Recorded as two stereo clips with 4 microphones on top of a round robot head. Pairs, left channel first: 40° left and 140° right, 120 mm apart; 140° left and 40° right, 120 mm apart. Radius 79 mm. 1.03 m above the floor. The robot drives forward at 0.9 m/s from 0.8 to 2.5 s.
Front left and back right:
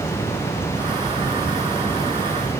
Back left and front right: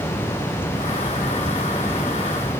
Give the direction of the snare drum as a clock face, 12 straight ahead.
No snare drum in this recording.